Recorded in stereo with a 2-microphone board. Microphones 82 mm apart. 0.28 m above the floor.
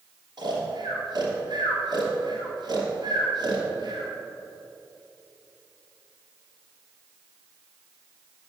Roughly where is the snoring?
Right.